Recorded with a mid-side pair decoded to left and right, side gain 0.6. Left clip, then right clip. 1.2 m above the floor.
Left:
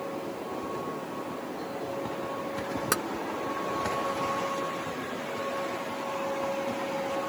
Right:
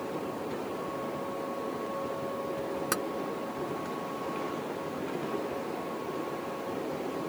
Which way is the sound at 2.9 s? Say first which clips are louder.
Left 3 dB; 20° left.